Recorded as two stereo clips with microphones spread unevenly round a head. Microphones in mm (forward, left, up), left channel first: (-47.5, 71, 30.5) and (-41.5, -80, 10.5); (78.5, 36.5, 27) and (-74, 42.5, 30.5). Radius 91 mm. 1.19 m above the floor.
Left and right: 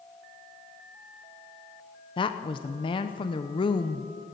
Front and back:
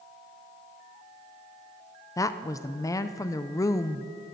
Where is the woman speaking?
45° left, 0.6 m.